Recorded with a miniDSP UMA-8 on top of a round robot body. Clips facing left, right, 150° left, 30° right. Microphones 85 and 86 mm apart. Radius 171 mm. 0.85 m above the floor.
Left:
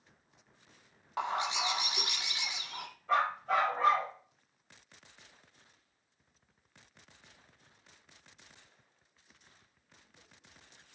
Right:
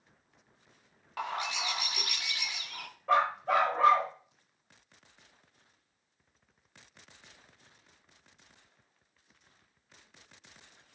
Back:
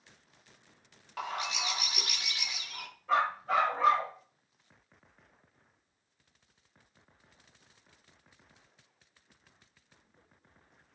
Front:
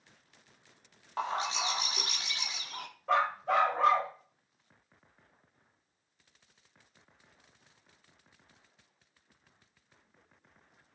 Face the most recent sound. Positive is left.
turn(degrees=-60)